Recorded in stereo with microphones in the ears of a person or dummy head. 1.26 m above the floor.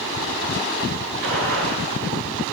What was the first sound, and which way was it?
A gunshot, 70° right (ahead or behind).